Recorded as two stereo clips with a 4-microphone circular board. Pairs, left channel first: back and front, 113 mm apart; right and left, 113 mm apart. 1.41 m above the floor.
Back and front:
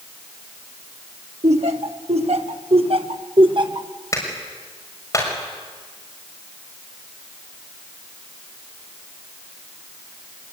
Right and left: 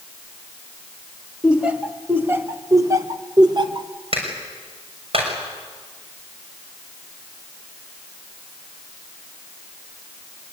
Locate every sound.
1.4 s laughter: 10° left, 2 m; by 3.9 s 45° left, 1.6 m
4.1 s a clap: 120° left, 6.5 m